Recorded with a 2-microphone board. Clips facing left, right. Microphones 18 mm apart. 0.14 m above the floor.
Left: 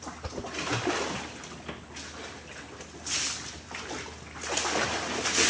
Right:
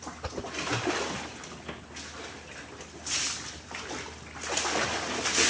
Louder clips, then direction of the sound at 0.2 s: Right 2 dB; 20° right (ahead or behind).